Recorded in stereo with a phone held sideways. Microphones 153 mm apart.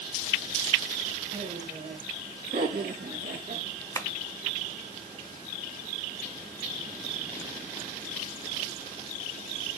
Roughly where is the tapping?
Centre.